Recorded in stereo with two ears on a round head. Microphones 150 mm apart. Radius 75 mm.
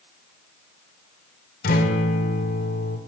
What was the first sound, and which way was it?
A guitar, 60° left (ahead or behind).